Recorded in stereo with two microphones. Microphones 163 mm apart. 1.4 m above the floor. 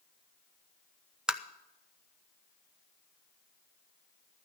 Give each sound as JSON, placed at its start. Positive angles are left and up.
{"t": 1.3, "sound": "tapping", "side_deg": -5, "distance_m": 0.5}